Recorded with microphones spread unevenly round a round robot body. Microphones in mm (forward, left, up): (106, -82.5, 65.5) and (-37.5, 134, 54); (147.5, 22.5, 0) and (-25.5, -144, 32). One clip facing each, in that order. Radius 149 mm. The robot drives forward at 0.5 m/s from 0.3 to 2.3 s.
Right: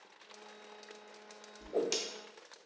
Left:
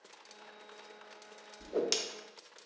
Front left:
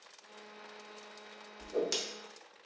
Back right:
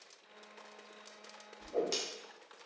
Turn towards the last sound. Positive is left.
turn(degrees=125)